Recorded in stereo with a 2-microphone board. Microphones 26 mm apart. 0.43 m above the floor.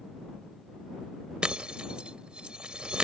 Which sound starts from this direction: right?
Breaking glass, at 1.4 s.